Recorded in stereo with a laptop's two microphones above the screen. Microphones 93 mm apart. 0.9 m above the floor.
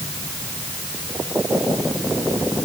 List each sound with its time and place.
Only background noise.